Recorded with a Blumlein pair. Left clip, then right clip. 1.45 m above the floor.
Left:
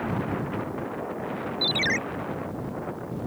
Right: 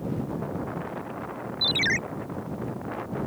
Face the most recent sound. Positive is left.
turn(degrees=-5)